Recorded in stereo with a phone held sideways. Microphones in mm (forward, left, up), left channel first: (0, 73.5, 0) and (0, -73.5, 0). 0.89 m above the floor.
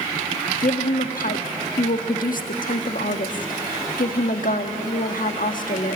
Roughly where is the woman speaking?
Left.